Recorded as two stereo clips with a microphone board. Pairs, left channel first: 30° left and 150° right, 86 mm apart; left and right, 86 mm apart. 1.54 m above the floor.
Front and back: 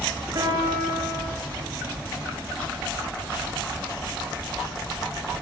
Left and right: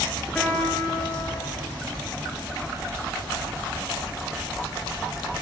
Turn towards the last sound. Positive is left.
turn(degrees=170)